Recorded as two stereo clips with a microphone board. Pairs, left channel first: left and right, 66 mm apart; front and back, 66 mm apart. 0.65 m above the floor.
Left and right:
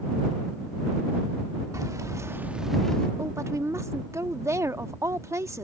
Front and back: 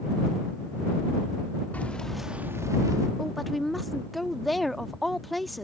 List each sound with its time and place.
1.7 s keys jangling: 65° right; by 3.1 s 165° left
3.2 s a woman speaking: 90° right